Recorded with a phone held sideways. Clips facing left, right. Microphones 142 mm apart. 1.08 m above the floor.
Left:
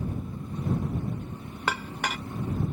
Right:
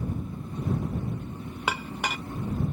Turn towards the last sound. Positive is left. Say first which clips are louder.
# even
turn(degrees=-10)  # may be behind; listen again after turning